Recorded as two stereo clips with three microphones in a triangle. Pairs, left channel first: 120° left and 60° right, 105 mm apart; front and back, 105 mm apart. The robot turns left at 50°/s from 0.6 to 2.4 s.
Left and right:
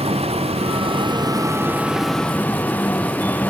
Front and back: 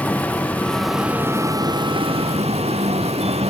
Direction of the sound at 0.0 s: 75° right.